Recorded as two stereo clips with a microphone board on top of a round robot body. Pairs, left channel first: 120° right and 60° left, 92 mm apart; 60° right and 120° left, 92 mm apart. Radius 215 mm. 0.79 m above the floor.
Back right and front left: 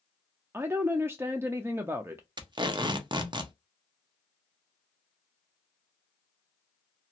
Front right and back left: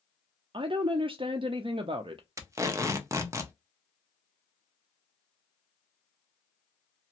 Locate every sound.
0.5 s a woman speaking: 120° left, 0.5 m
2.4 s tape being pulled: 70° left, 0.8 m